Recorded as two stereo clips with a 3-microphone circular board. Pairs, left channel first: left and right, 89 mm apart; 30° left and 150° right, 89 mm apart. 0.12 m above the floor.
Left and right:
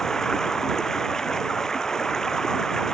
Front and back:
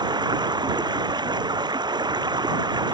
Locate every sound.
0.0 s running water: 175° left